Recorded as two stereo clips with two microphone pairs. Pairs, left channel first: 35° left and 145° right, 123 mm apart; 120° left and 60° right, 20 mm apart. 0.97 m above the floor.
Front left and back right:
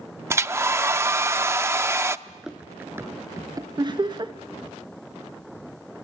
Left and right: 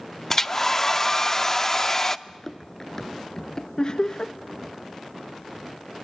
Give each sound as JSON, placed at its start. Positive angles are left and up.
{"t": 0.3, "sound": "a hair dryer", "azimuth_deg": 170, "distance_m": 0.5}
{"t": 2.3, "sound": "running footsteps", "azimuth_deg": 120, "distance_m": 0.9}
{"t": 3.8, "sound": "laughter", "azimuth_deg": 165, "distance_m": 1.0}